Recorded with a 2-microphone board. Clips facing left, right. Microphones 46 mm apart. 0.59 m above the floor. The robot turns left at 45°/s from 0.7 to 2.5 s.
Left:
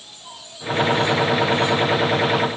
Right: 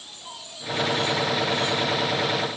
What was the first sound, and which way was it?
Only background noise.